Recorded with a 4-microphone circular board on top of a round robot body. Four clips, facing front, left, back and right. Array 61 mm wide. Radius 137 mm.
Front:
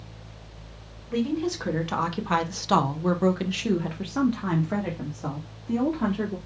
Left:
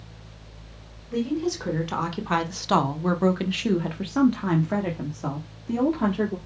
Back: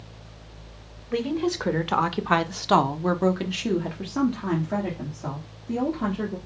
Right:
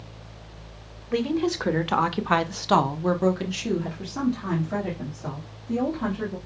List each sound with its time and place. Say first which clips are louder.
1.1 s a woman speaking: right 2 dB, back 1 dB; 115° right, 1.4 m; by 6.4 s 80° left, 2 m